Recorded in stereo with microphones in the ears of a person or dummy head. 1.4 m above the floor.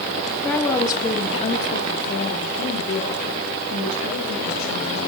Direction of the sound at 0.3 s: 5° right (ahead or behind).